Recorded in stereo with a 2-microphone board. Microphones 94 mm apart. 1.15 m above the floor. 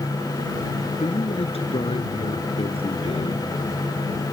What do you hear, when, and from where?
1.0 s a man speaking: 80° left